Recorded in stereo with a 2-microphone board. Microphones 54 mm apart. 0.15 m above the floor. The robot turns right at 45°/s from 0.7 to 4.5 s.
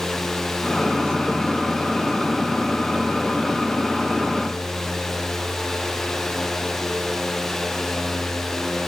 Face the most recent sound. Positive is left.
No sound to turn to.